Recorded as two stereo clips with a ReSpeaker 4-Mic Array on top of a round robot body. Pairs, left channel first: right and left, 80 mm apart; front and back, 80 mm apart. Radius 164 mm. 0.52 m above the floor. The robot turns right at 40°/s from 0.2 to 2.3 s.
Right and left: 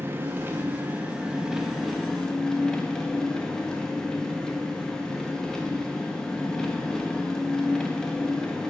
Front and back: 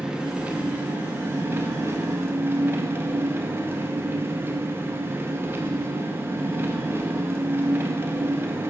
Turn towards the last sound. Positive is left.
turn(degrees=-165)